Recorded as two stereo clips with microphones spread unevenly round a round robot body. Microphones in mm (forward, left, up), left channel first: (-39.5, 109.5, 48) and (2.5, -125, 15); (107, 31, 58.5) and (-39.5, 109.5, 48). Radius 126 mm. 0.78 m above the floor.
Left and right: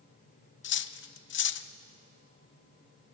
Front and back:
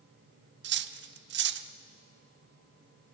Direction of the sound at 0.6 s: 145° left.